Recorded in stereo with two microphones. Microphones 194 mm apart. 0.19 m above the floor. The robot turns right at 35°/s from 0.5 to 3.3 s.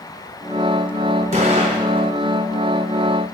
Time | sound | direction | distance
1.3 | an explosion | 35° right (ahead or behind) | 1.7 m